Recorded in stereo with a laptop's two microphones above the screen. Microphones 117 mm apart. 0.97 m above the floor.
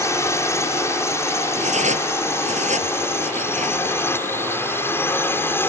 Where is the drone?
25° left (ahead or behind); by 5.7 s 20° left (ahead or behind).